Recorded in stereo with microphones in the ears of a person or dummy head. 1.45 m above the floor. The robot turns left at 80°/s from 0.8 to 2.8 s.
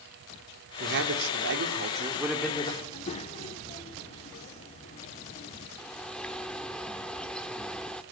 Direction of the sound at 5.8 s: Centre (ahead or behind).